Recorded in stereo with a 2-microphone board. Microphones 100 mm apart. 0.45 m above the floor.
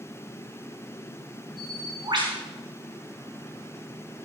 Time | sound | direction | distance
1.6 | a bird | 50° right (ahead or behind) | 4.5 m